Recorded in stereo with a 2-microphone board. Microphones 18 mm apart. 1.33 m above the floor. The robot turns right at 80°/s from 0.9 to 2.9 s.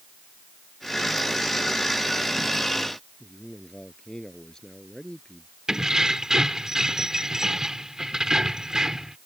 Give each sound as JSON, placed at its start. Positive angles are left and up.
{"t": 3.2, "sound": "a man speaking", "side_deg": 35}
{"t": 5.7, "sound": "keys jangling", "side_deg": -40}